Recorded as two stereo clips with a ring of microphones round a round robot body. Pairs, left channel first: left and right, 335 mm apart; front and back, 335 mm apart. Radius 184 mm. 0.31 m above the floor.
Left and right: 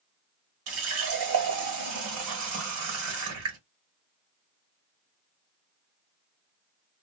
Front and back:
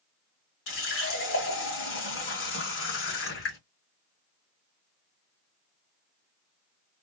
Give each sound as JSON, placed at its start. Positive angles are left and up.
{"t": 0.7, "sound": "a running tap", "azimuth_deg": -50, "distance_m": 1.3}